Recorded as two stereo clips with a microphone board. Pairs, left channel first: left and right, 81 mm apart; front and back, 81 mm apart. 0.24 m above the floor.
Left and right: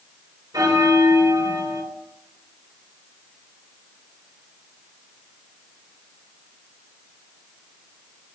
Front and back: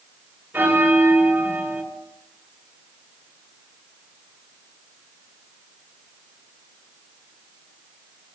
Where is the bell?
115° right, 2.5 m.